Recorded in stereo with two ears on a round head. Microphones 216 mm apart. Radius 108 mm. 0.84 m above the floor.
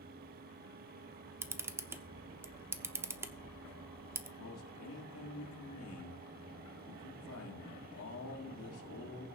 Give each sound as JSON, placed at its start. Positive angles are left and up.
{"t": 1.4, "sound": "a camera shutter", "side_deg": -10, "distance_m": 0.7}
{"t": 4.4, "sound": "a man speaking", "side_deg": 65, "distance_m": 2.0}